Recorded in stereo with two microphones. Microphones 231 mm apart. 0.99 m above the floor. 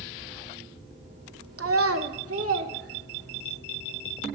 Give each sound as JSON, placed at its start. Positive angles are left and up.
{"t": 1.6, "sound": "a child speaking", "side_deg": -75, "distance_m": 0.6}